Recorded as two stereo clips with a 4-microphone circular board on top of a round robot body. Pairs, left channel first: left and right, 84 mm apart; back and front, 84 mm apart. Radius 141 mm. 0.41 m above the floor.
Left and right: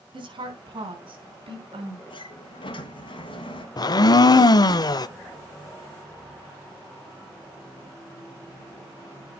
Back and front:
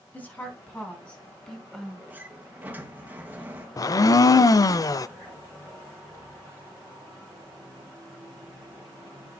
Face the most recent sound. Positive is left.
turn(degrees=130)